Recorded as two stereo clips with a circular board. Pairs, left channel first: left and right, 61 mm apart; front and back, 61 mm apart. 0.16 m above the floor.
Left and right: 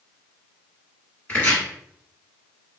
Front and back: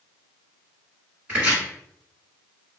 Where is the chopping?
130° left, 1.7 m.